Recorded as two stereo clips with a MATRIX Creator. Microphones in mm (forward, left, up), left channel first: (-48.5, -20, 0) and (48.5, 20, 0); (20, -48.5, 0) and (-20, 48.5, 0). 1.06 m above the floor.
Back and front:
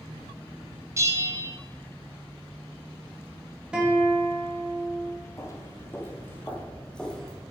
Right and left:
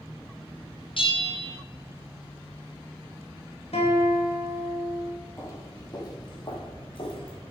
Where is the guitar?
55° right, 2.5 m.